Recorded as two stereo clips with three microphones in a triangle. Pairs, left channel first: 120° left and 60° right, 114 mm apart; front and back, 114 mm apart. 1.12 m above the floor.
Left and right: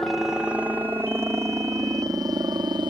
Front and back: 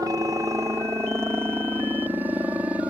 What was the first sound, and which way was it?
A helicopter, 150° right.